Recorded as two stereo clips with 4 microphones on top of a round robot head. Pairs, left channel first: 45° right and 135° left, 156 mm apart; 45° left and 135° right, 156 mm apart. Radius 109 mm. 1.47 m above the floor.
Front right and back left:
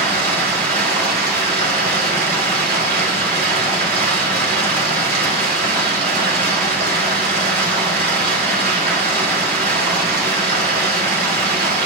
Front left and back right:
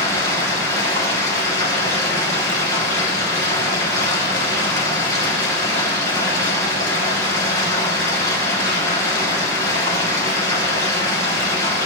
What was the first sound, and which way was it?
Running water, 115° left.